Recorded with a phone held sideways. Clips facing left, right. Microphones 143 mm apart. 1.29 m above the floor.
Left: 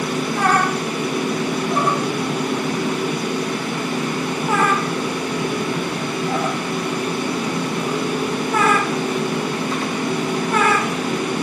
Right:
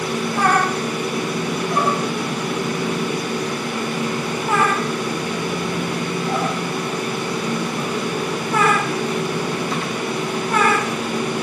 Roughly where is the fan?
Left.